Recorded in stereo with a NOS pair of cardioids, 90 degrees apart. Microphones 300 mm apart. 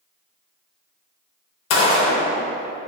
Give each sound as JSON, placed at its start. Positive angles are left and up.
{"t": 1.7, "sound": "a gunshot", "azimuth_deg": 65, "distance_m": 0.7}